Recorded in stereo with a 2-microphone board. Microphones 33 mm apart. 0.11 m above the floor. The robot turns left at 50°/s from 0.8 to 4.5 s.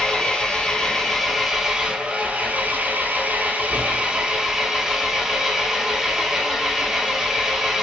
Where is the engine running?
25° left, 0.9 m; by 7.8 s 160° right, 0.9 m.